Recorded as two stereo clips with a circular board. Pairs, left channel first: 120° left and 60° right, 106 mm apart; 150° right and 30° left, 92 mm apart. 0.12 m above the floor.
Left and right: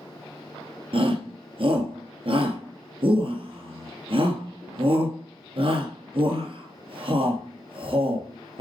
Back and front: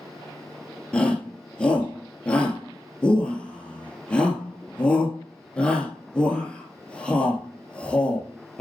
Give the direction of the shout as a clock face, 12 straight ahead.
2 o'clock.